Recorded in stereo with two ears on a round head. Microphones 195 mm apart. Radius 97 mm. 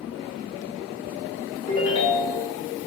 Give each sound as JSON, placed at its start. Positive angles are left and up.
{"t": 1.7, "sound": "a ringtone", "side_deg": 40, "distance_m": 1.0}